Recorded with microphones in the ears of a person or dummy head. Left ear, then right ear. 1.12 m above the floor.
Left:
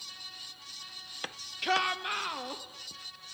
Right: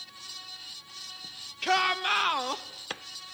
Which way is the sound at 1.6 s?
5° left (ahead or behind).